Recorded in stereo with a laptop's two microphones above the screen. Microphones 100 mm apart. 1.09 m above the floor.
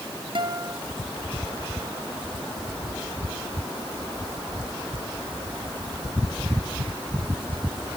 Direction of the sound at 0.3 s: 55° right (ahead or behind).